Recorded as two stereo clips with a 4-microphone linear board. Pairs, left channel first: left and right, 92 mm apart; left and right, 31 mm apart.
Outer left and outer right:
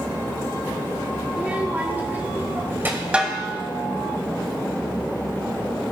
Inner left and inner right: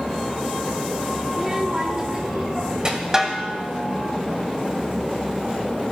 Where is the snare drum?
15° right (ahead or behind), 1.0 m.